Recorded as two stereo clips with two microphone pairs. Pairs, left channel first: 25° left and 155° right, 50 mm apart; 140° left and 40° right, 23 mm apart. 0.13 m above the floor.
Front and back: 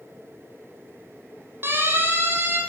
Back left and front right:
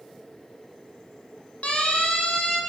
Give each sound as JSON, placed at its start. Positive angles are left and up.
{"t": 1.6, "sound": "a siren", "azimuth_deg": 165, "distance_m": 7.5}